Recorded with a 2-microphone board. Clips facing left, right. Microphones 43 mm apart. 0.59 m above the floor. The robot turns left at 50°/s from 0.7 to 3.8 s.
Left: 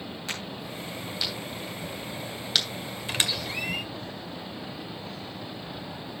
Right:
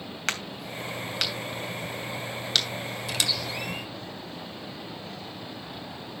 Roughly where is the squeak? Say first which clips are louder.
Left 1 dB; left.